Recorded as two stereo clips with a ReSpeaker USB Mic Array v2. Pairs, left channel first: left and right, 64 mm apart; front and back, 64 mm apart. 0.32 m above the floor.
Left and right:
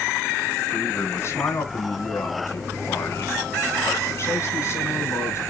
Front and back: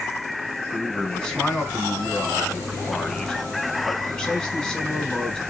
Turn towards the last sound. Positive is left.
turn(degrees=85)